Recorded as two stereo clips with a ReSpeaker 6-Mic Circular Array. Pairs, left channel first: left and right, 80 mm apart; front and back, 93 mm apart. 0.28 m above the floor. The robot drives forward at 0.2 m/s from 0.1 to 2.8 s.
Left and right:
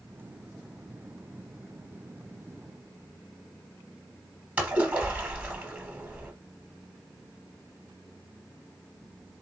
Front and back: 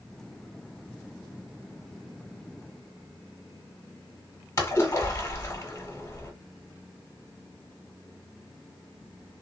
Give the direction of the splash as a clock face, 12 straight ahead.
1 o'clock.